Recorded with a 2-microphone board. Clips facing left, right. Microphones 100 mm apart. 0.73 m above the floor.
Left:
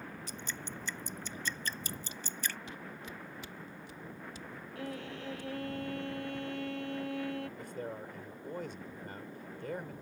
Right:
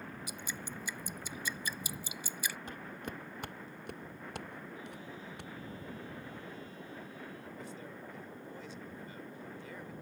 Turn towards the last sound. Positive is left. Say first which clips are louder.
# left 5 dB
turn(degrees=55)  # may be behind; listen again after turning